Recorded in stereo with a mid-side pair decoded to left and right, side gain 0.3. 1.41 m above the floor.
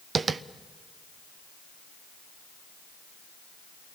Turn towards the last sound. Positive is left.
turn(degrees=-60)